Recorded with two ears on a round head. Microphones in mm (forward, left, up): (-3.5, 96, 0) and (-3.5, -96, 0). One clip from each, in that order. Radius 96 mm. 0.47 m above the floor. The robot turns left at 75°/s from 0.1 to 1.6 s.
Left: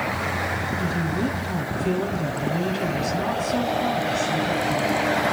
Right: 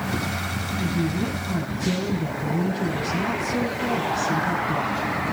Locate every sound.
0.8 s a woman speaking: 170° left, 9.5 m; by 5.2 s 105° left, 9.5 m